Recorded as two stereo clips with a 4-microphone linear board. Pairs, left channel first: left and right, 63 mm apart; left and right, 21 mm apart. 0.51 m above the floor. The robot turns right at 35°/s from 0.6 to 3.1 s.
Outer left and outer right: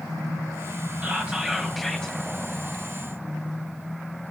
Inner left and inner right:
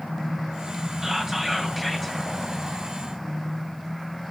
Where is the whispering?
25° right, 2.5 m; by 2.2 s 15° left, 2.5 m.